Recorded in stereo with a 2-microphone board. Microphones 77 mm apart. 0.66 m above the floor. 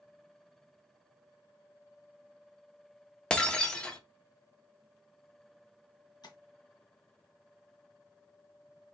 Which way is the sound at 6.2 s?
60° left (ahead or behind).